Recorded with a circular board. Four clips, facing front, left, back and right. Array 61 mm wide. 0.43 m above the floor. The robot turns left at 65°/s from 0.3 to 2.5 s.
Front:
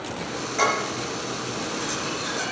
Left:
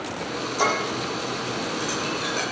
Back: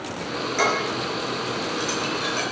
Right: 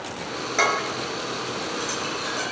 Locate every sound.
0.6 s dishes clattering: 100° right, 5 m; by 2.4 s 140° left, 5 m